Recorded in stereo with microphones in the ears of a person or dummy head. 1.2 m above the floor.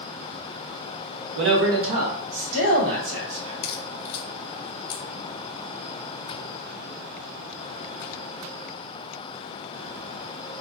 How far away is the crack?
About 0.8 m.